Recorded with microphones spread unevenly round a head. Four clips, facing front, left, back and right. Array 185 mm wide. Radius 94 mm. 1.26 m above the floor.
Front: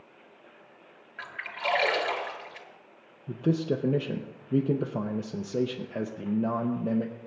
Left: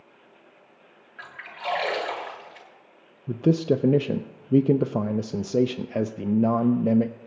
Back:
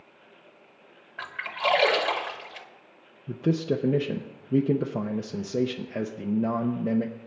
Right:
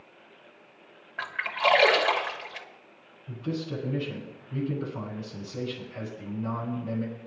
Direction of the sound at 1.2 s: 135° right.